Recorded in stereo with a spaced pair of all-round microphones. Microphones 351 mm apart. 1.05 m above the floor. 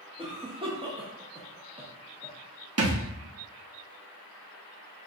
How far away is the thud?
About 0.6 m.